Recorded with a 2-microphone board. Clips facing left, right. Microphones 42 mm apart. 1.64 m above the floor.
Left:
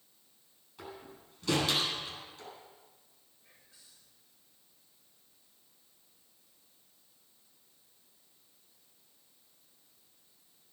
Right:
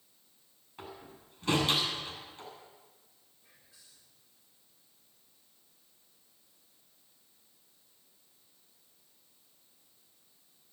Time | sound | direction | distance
0.8 | a door slam | 35° right (ahead or behind) | 7.5 m
3.4 | whispering | 15° right (ahead or behind) | 5.5 m